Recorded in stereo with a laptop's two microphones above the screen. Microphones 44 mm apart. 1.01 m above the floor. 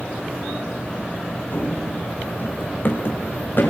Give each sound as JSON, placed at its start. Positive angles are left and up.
{"t": 1.5, "sound": "running footsteps", "side_deg": 45, "distance_m": 3.0}